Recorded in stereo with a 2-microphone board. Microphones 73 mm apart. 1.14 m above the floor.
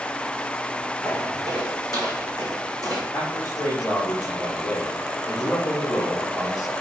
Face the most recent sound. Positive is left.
turn(degrees=70)  # may be behind; listen again after turning